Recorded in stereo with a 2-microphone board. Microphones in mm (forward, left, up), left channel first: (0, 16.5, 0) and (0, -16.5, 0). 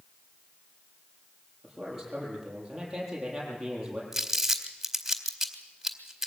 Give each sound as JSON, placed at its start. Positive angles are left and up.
{"t": 1.6, "sound": "a man speaking", "side_deg": -5, "distance_m": 9.5}
{"t": 4.1, "sound": "crumpling", "side_deg": -10, "distance_m": 2.0}